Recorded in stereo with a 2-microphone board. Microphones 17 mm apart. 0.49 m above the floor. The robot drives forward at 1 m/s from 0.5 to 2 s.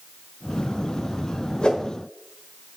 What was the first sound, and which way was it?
A whoosh, 65° left (ahead or behind).